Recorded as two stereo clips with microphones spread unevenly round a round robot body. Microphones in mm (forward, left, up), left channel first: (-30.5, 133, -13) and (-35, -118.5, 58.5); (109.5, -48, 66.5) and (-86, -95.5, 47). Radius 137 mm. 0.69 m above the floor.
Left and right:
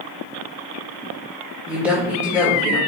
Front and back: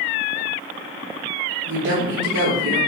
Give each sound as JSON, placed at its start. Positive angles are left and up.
{"t": 1.7, "sound": "a woman speaking", "azimuth_deg": 180, "distance_m": 2.0}